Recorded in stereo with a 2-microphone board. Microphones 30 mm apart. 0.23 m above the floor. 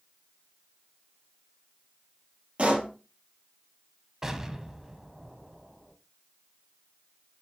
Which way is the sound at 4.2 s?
20° right (ahead or behind).